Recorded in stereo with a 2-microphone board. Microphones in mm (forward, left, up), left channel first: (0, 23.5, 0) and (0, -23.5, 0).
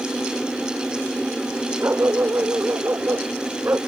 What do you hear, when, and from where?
1.8 s a dog barking: 55° right (ahead or behind)